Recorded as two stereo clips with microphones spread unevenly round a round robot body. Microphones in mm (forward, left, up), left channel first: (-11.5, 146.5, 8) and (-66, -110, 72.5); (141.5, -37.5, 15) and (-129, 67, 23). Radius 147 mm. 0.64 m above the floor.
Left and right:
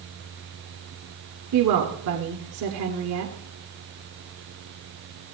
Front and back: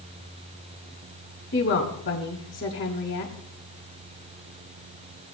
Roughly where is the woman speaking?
Ahead right.